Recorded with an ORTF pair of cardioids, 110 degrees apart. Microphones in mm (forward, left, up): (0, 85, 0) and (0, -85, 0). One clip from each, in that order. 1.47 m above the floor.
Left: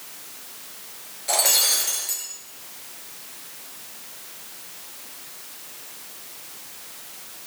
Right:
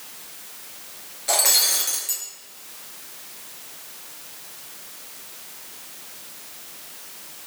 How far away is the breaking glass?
About 5 m.